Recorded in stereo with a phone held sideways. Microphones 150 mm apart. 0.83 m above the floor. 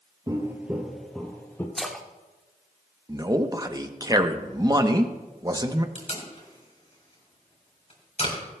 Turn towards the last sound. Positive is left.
turn(degrees=45)  # may be behind; listen again after turning